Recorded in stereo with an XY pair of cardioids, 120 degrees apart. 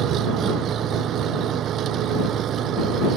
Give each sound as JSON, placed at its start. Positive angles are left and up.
{"t": 0.0, "sound": "an engine running", "azimuth_deg": -55}